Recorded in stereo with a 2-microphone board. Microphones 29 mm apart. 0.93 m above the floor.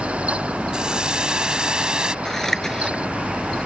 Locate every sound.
0.7 s a hiss: 30° right (ahead or behind)
2.2 s scissors: 15° left (ahead or behind)